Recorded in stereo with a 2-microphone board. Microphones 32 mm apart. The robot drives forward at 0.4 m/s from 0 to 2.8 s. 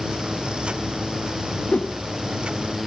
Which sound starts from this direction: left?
A whoosh, at 1.7 s.